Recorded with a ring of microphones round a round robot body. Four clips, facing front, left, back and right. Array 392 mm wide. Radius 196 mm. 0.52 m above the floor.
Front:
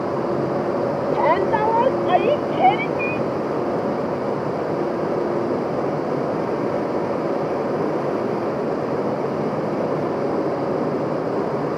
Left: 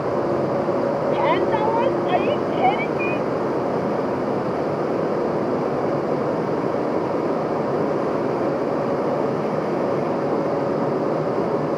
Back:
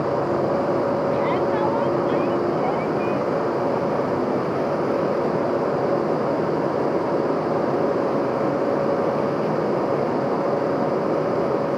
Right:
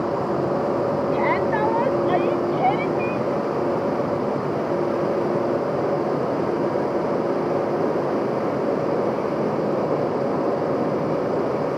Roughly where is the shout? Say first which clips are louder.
Left 3 dB, front 3 dB; ahead.